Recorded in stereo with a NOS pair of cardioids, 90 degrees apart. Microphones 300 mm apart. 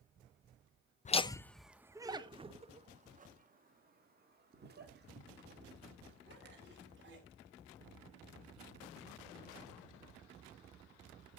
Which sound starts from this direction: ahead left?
Laughter, at 1.1 s.